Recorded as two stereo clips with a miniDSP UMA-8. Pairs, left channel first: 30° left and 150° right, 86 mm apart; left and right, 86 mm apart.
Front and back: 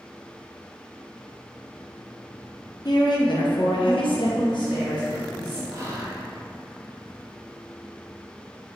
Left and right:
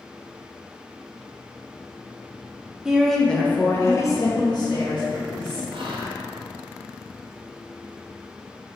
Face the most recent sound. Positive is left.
turn(degrees=-95)